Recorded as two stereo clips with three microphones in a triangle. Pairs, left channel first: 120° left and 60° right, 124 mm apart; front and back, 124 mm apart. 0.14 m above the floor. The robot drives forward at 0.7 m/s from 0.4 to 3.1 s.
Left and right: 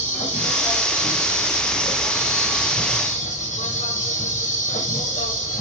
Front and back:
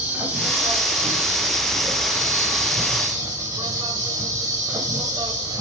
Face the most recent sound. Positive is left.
turn(degrees=120)